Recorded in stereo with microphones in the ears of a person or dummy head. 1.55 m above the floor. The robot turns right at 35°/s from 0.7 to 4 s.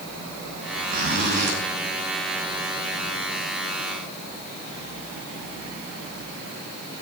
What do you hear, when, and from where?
0.9 s a zipper: 40° right (ahead or behind), 3.5 m; by 1.6 s 60° right (ahead or behind), 3.5 m